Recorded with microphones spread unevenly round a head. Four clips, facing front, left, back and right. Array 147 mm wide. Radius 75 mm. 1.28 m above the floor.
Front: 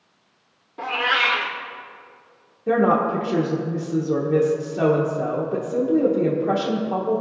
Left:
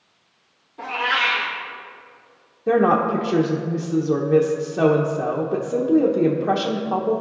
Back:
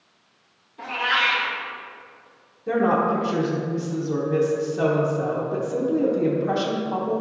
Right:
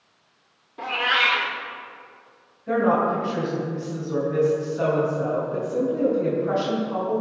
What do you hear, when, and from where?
0.8 s a cat meowing: 15° right, 1.1 m
2.7 s a woman speaking: 65° left, 1.0 m